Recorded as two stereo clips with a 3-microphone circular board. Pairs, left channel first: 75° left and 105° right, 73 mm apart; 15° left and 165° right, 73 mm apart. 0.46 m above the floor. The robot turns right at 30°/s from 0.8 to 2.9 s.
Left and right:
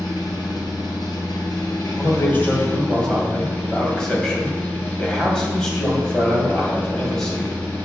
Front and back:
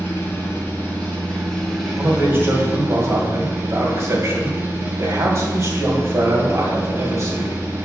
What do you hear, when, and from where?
0.0 s an engine running: 75° left, 3 m; by 7.8 s 140° left, 3 m
2.0 s a man speaking: 125° left, 2.5 m; by 7.6 s 155° left, 2.5 m